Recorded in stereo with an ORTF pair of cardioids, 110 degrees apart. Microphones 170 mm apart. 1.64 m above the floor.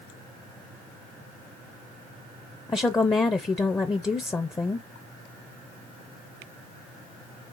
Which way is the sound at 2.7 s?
15° left.